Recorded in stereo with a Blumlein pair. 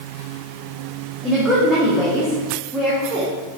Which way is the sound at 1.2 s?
Straight ahead.